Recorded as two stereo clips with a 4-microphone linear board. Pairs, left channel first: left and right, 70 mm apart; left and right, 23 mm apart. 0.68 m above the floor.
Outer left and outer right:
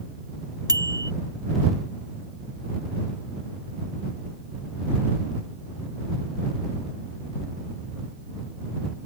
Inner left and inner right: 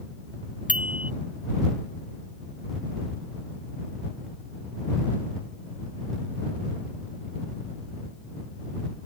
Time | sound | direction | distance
0.7 | a bicycle bell | 70° right (ahead or behind) | ?